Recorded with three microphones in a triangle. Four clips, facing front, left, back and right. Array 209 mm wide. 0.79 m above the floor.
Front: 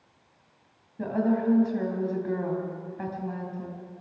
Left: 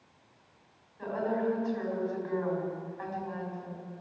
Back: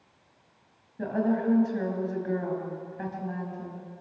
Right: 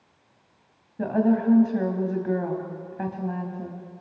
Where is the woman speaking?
85° right, 5 m.